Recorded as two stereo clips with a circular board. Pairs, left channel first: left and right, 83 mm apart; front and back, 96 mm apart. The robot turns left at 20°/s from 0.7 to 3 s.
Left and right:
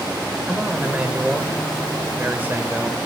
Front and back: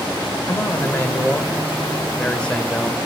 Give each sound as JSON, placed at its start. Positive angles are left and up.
{"t": 0.5, "sound": "a man speaking", "azimuth_deg": -25, "distance_m": 0.9}